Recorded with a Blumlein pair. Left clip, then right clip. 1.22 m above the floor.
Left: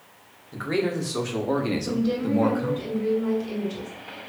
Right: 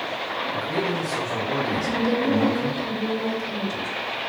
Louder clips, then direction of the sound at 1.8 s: Right 4 dB; 60° right.